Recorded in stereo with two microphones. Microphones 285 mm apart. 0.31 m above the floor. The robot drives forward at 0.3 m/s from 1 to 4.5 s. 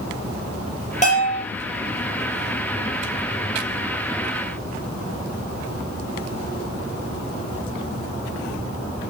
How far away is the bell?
About 4 m.